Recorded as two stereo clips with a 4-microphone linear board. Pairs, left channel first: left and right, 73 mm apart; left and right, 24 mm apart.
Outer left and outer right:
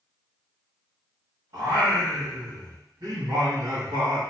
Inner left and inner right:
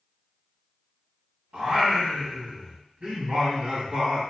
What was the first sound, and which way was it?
Singing, 65° right (ahead or behind).